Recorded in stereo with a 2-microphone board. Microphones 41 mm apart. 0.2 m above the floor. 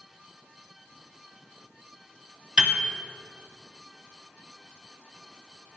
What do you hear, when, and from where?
2.6 s a piano: 25° right (ahead or behind), 0.8 m